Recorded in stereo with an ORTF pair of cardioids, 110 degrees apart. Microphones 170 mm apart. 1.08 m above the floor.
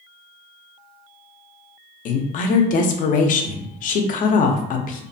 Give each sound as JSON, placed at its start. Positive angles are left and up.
{"t": 2.0, "sound": "a woman speaking", "azimuth_deg": 60, "distance_m": 0.5}